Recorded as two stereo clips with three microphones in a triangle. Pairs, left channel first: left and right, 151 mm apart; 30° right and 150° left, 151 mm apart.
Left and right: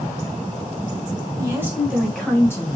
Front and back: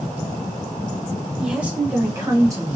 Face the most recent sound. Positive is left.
turn(degrees=120)